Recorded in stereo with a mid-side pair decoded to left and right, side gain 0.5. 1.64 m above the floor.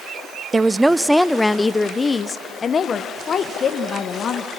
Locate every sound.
0.5 s a woman speaking: 20° right, 0.7 m; by 4.5 s 50° left, 2 m